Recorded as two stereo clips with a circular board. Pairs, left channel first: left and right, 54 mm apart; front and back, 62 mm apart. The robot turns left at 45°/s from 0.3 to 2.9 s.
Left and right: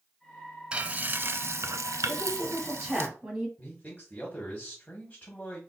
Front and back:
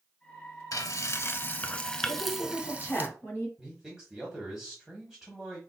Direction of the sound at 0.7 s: 20° right.